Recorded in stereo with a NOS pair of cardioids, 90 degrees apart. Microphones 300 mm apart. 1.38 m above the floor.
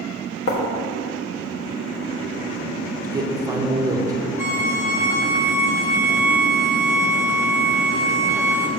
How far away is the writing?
About 1.6 m.